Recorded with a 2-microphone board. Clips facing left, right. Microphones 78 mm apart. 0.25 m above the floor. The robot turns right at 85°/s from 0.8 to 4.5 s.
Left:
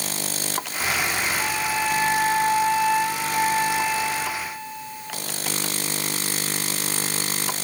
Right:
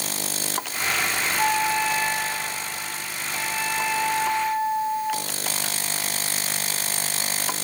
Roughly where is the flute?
Ahead right.